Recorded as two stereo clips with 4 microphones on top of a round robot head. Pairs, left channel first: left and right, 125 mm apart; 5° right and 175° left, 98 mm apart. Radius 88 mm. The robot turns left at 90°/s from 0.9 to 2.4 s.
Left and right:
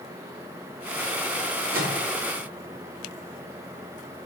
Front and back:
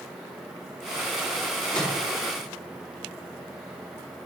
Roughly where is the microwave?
Ahead right.